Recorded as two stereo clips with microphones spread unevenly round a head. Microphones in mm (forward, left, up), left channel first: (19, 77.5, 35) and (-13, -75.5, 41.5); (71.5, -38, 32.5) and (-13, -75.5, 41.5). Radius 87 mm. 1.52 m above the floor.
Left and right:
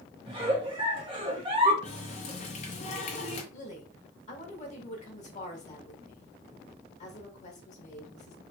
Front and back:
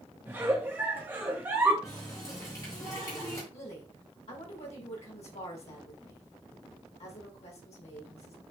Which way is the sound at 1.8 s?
85° left.